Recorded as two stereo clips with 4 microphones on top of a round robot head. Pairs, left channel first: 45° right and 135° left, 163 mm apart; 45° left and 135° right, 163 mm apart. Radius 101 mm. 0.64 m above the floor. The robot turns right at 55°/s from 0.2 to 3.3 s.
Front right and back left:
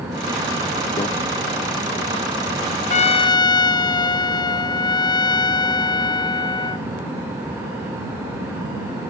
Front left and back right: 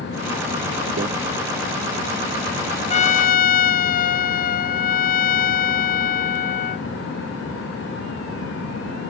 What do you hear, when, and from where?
1.0 s a microwave: 105° right; by 1.1 s 100° right
2.9 s a trumpet: 5° right; by 6.9 s 20° left